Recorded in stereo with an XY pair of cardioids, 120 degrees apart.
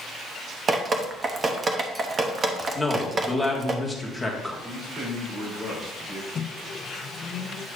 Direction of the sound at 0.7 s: 35° right.